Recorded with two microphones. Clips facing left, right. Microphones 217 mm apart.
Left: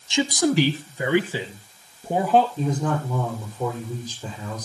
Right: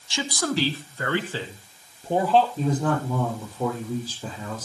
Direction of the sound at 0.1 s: 20° left (ahead or behind).